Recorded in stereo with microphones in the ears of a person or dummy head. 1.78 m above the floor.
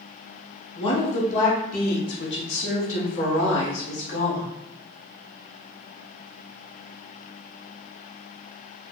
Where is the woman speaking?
30° left (ahead or behind), 1.4 m; by 4.5 s 65° left (ahead or behind), 2.0 m.